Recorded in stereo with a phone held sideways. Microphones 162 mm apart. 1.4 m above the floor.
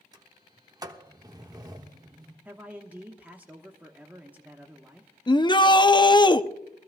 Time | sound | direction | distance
0.1 | a sliding door | 25° right (ahead or behind) | 1.1 m
2.5 | a man speaking | 10° right (ahead or behind) | 1.1 m
5.3 | a shout | 30° left (ahead or behind) | 0.6 m